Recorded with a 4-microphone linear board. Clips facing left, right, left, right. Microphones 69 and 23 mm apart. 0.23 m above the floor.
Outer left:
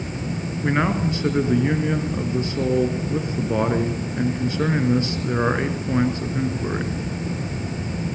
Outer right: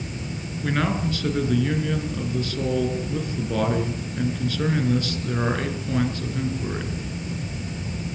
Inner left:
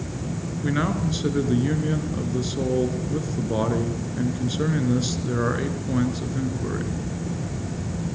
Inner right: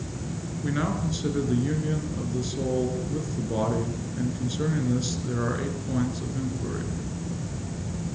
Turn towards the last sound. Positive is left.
turn(degrees=20)  # may be behind; listen again after turning